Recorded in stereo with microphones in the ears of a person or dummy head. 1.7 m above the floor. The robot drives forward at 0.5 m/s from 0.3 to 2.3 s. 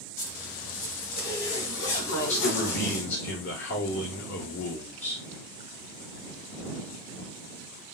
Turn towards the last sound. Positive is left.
turn(degrees=80)